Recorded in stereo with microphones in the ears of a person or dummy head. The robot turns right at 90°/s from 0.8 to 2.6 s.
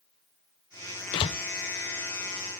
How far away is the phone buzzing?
No phone buzzing in this recording.